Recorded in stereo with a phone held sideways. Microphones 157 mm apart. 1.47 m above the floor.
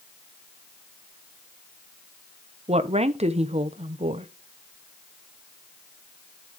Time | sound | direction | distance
2.7 | a woman speaking | 40° right (ahead or behind) | 1.0 m